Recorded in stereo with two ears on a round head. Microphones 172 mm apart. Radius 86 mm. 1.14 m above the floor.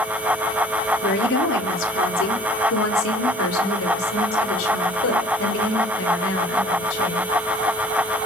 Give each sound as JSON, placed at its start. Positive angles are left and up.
{"t": 1.0, "sound": "a woman speaking", "side_deg": 60, "distance_m": 3.5}